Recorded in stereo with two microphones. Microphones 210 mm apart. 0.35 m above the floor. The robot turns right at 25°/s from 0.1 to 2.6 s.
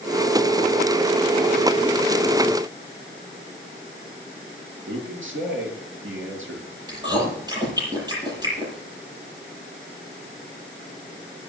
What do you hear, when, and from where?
4.9 s a man speaking: 80° right, 7 m
6.9 s chewing: 20° right (ahead or behind), 8.5 m